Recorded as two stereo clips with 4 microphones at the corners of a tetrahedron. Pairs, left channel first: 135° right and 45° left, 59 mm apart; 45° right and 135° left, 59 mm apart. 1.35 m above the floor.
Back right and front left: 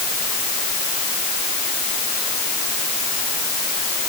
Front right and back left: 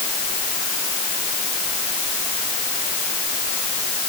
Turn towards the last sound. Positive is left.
No sound to turn to.